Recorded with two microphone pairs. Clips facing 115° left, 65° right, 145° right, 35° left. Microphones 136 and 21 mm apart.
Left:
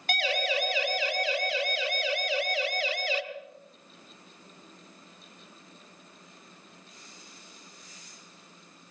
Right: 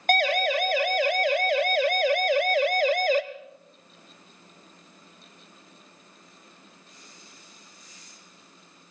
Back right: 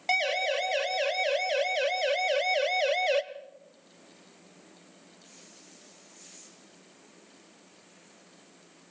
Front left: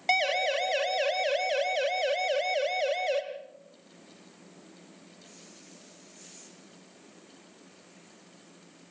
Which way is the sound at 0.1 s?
40° right.